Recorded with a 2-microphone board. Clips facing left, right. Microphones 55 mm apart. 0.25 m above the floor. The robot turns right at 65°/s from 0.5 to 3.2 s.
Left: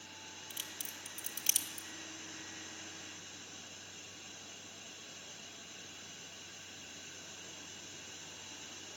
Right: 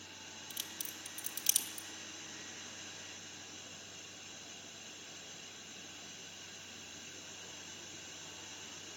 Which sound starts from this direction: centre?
A crack, at 0.5 s.